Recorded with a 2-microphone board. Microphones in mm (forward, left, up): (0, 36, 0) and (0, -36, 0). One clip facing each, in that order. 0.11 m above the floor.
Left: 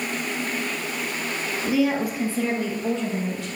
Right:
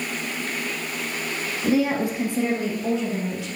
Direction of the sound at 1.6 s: 40° right (ahead or behind).